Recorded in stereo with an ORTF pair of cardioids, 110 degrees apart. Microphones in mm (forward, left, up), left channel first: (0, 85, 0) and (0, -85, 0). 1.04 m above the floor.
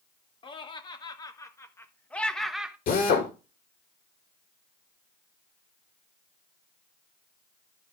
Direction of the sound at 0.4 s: 30° left.